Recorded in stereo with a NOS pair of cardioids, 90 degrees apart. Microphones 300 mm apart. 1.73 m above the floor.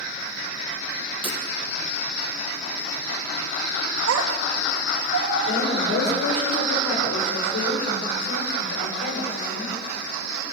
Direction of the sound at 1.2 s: 15° right.